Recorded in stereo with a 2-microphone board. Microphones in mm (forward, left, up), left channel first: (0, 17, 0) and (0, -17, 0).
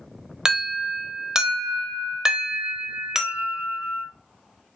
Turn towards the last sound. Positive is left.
turn(degrees=-20)  # may be behind; listen again after turning